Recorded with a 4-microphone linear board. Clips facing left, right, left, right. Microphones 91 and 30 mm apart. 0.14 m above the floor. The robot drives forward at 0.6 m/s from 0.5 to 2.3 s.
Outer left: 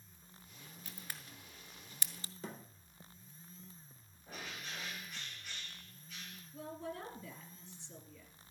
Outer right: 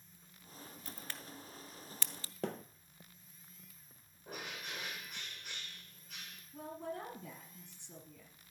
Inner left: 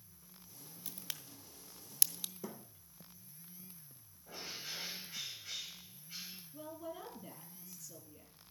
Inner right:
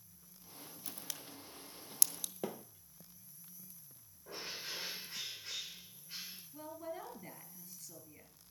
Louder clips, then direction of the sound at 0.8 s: Outer right 1 dB, inner left 1 dB; 10° left (ahead or behind).